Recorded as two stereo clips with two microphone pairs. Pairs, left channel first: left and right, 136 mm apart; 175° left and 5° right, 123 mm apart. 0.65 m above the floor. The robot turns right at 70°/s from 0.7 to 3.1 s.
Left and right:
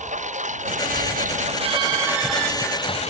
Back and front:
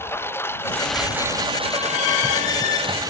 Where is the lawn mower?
115° right; by 3.1 s 55° left.